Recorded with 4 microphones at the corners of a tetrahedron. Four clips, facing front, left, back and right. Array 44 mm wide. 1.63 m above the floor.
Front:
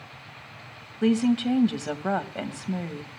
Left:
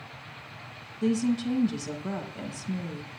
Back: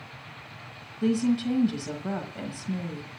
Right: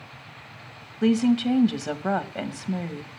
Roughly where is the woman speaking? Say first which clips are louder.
Right 6 dB, front 3 dB; ahead right.